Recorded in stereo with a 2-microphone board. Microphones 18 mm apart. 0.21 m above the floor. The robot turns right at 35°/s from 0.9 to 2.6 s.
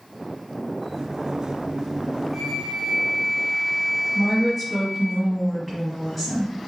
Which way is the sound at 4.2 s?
10° left (ahead or behind).